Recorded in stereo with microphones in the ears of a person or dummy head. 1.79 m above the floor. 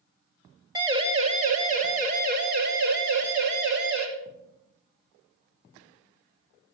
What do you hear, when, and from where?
0.8 s a siren: 20° right (ahead or behind), 3 m; by 4.0 s 60° right (ahead or behind), 5.5 m